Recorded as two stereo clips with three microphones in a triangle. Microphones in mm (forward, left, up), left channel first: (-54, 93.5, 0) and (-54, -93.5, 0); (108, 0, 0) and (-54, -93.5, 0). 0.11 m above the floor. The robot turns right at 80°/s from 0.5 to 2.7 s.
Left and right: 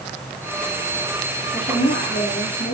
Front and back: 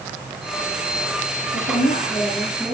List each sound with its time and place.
1.5 s a woman speaking: 35° left, 3 m; by 2.7 s 130° left, 3 m